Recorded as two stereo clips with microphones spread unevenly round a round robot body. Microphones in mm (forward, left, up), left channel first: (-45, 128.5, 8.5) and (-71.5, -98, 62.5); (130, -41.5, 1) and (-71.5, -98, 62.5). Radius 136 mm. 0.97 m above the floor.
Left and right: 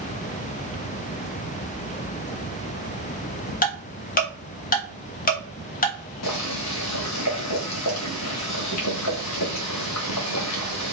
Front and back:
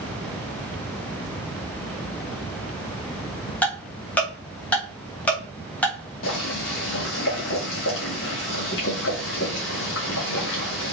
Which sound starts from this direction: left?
Ticking, at 3.6 s.